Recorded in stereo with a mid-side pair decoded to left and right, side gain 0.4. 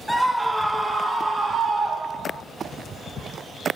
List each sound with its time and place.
0.1 s a scream: 10° right, 1.9 m; by 2.4 s 60° right, 2.5 m